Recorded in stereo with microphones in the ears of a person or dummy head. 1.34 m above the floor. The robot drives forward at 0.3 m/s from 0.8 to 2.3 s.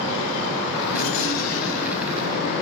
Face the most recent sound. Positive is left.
turn(degrees=75)  # may be behind; listen again after turning